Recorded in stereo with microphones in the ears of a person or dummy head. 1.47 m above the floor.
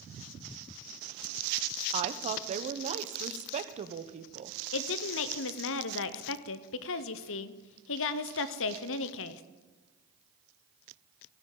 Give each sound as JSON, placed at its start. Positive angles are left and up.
{"t": 1.9, "sound": "a woman speaking", "side_deg": -35, "distance_m": 0.8}
{"t": 4.7, "sound": "a woman speaking", "side_deg": 65, "distance_m": 0.7}